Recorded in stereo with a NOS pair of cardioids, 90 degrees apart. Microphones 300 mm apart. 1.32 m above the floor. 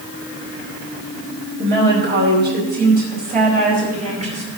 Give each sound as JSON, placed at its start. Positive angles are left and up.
{"t": 1.6, "sound": "a woman speaking", "azimuth_deg": -45, "distance_m": 4.5}